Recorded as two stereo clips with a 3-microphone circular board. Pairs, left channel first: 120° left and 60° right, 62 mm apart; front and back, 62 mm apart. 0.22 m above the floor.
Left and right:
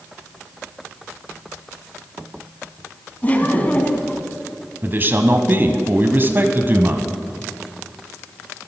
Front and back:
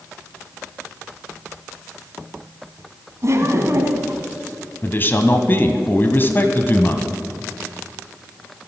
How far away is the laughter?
About 1.6 m.